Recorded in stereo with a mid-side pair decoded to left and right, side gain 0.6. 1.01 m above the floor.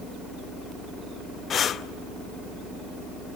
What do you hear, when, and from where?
1.5 s breathing: 45° left, 0.6 m